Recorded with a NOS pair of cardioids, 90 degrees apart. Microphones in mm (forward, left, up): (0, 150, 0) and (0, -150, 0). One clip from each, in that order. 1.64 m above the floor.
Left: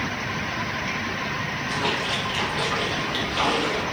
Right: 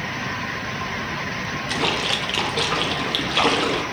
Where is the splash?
45° right, 0.7 m.